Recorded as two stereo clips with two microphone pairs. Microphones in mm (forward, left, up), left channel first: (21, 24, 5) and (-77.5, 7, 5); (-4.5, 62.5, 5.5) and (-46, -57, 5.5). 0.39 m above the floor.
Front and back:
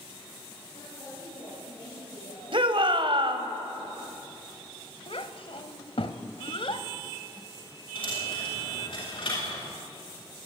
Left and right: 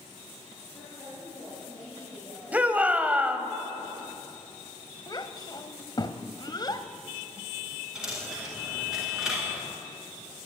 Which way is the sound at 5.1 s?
20° left.